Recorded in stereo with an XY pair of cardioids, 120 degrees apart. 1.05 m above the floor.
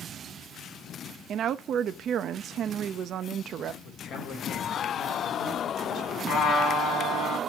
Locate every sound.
1.3 s a woman speaking: 55° right, 0.8 m
3.8 s a man speaking: 65° left, 3.5 m
6.3 s a trumpet: 60° left, 4 m